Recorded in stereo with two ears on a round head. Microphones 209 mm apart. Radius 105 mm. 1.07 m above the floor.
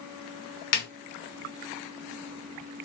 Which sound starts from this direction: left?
A snare drum, at 0.7 s.